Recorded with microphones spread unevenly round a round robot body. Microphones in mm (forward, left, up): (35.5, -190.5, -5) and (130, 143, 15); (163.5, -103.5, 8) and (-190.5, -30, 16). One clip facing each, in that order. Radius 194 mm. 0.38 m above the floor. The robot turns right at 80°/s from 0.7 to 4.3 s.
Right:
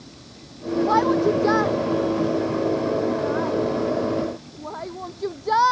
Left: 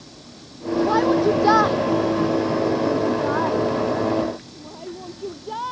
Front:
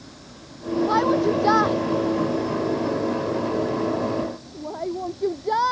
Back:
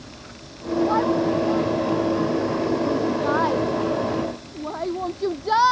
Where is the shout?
50° right; by 5.7 s 135° right.